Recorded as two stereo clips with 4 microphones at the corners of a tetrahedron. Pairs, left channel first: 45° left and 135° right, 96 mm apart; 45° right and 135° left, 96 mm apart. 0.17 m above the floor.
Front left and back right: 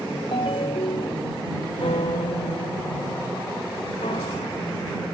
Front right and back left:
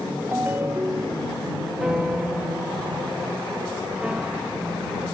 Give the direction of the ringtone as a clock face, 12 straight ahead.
10 o'clock.